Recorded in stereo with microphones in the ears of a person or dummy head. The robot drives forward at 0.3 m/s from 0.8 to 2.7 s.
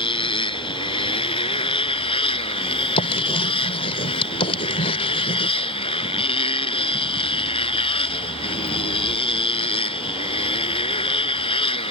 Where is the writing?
30° left (ahead or behind).